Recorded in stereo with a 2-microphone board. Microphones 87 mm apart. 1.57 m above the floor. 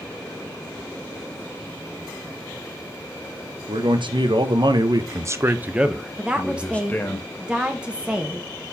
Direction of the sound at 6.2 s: 10° right (ahead or behind).